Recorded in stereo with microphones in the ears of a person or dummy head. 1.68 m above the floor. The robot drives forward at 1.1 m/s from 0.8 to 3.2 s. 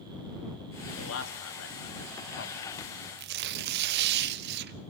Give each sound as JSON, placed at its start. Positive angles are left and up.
{"t": 1.0, "sound": "a man speaking", "side_deg": 80, "distance_m": 2.5}
{"t": 3.2, "sound": "tearing paper", "side_deg": -60, "distance_m": 1.2}